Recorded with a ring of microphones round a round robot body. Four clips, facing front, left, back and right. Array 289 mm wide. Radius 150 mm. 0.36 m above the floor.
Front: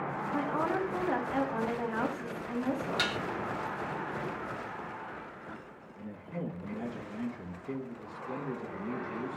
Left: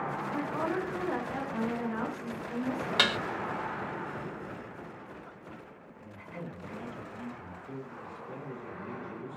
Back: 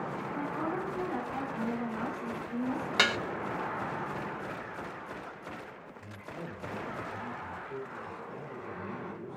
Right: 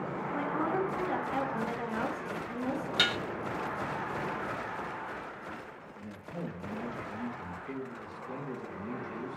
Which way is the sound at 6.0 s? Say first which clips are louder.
Right 3 dB, front 5 dB; 5° right.